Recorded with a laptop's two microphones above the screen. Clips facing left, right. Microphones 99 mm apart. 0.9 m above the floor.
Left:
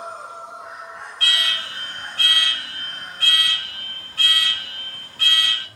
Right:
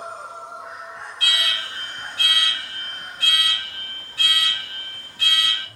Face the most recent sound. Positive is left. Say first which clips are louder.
# left 1 dB
turn(degrees=45)  # may be behind; listen again after turning